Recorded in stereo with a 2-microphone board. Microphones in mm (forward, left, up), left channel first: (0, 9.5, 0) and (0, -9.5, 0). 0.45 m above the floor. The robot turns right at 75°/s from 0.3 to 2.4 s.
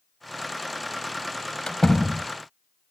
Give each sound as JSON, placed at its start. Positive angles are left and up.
{"t": 1.7, "sound": "a door slam", "azimuth_deg": 135}